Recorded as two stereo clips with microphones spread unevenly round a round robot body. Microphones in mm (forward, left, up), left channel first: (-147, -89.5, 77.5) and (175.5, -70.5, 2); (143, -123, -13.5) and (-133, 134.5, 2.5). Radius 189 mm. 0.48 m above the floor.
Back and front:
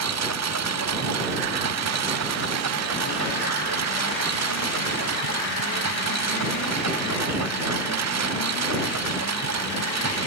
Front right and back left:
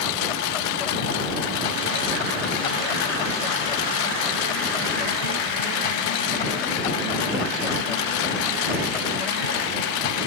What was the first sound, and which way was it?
A lawn mower, 40° right.